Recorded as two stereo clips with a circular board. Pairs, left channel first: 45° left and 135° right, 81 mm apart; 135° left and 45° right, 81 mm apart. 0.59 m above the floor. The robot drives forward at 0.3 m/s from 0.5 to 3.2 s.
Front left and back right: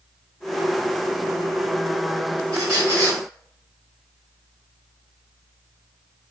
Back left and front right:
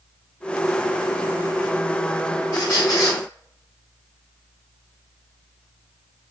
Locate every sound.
2.5 s a squeak: straight behind, 1.6 m